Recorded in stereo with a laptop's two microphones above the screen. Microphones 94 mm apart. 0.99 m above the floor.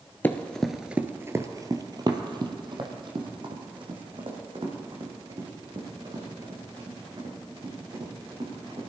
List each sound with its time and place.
0.2 s running footsteps: 20° left (ahead or behind), 1.0 m; by 8.8 s 55° right (ahead or behind), 7.5 m